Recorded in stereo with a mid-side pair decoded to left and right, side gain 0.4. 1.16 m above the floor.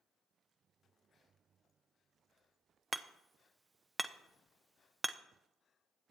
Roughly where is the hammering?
Ahead.